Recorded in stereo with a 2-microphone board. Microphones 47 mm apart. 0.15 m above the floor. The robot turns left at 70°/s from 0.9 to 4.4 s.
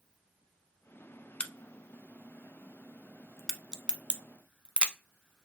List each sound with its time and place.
1.4 s a crack: 25° left (ahead or behind), 0.6 m; by 4.9 s 25° right (ahead or behind), 0.6 m